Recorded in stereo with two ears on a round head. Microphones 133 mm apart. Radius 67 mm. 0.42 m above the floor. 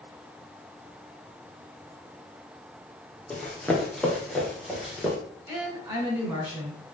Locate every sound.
3.3 s running footsteps: 5° left (ahead or behind), 3 m; by 5.2 s 5° right (ahead or behind), 4 m
5.5 s a woman speaking: 20° right (ahead or behind), 5 m